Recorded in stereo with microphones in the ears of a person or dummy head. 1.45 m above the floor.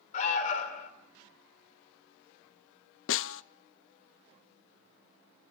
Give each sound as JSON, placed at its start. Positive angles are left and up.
{"t": 0.1, "sound": "an alarm", "side_deg": 35, "distance_m": 3.0}
{"t": 3.1, "sound": "a snare drum", "side_deg": 60, "distance_m": 0.6}